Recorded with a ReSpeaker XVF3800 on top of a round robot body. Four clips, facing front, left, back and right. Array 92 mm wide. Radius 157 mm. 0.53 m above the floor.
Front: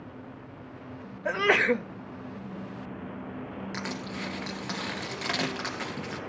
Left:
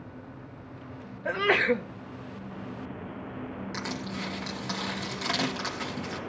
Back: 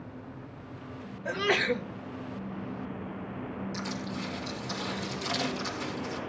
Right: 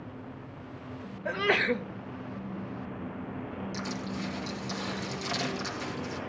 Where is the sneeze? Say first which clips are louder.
Left 3 dB, front 4 dB; 20° left, 1.1 m.